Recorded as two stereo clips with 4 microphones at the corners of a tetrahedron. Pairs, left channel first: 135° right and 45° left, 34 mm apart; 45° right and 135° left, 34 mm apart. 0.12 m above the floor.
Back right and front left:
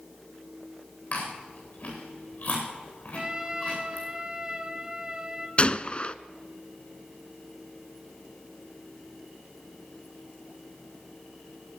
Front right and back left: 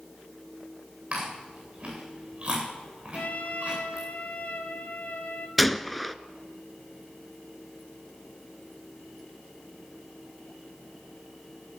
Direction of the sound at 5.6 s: 135° right.